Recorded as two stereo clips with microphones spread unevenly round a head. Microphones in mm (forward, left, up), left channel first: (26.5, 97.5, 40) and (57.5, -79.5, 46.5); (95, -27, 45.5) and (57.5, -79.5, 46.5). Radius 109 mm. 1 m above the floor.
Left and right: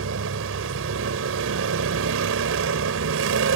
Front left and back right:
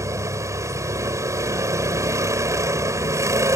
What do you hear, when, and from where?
0.0 s a vehicle: 85° right